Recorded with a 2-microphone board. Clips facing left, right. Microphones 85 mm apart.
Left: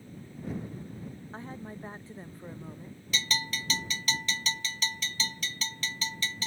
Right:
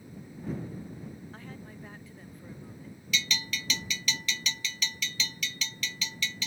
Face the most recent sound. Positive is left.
turn(degrees=40)  # may be behind; listen again after turning